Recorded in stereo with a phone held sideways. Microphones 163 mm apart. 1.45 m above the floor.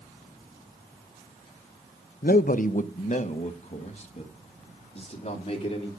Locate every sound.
2.2 s a man speaking: 65° left (ahead or behind), 0.5 m; by 5.9 s 40° left (ahead or behind), 4 m